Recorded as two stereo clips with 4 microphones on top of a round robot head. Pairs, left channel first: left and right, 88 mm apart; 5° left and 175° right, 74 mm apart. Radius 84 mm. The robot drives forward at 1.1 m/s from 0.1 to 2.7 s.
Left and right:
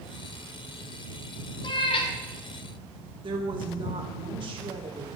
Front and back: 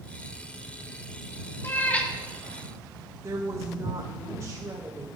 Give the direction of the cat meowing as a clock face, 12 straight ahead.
10 o'clock.